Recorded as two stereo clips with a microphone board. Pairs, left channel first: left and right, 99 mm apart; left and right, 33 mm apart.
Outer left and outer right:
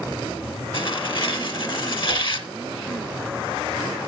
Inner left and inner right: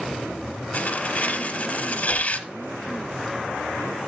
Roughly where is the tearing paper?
Left.